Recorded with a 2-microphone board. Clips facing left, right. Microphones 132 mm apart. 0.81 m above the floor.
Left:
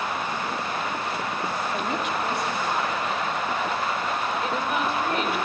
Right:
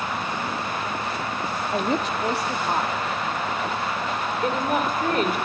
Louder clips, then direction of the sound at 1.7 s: Right 3 dB; 35° right (ahead or behind).